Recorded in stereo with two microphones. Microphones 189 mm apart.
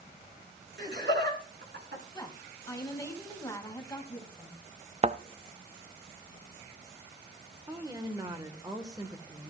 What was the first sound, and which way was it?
Laughter, 65° right (ahead or behind).